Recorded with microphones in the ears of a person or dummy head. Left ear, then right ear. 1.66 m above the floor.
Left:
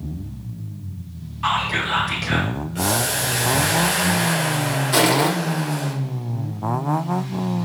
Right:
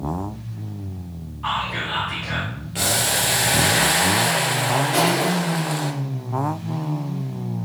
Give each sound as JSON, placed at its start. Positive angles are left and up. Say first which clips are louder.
{"t": 1.4, "sound": "whispering", "louder": "left 3 dB", "side_deg": 90, "distance_m": 2.5}
{"t": 2.8, "sound": "boiling", "louder": "right 2 dB", "side_deg": -25, "distance_m": 0.9}
{"t": 4.9, "sound": "crushing", "louder": "left 6 dB", "side_deg": 60, "distance_m": 2.0}